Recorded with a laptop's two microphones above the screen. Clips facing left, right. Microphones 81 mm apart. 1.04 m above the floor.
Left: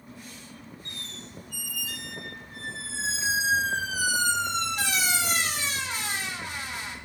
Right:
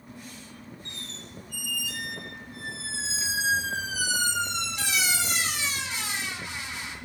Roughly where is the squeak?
Left.